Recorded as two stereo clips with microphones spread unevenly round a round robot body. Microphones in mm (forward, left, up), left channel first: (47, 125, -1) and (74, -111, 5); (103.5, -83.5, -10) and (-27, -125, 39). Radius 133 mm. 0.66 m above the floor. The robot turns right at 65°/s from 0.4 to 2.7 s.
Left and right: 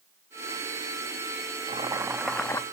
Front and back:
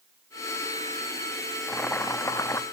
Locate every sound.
1.7 s boiling: 30° right, 0.7 m; by 2.6 s 30° left, 0.7 m